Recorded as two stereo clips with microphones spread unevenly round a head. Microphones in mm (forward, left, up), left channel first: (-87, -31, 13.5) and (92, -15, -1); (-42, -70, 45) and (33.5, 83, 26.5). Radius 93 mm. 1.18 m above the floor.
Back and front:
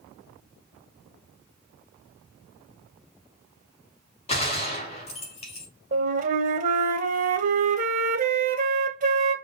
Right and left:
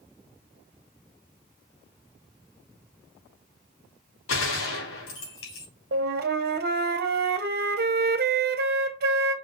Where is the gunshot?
120° right, 3.5 m.